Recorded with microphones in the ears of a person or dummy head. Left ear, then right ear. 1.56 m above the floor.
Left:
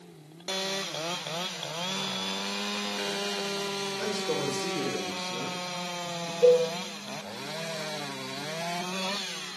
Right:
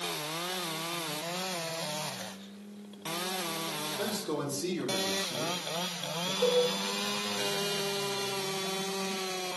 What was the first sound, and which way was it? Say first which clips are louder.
A man speaking: left 5 dB; 20° right (ahead or behind).